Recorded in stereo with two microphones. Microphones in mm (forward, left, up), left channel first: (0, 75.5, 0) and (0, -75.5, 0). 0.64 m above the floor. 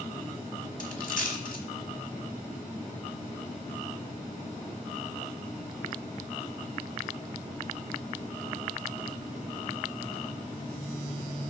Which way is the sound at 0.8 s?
70° left (ahead or behind).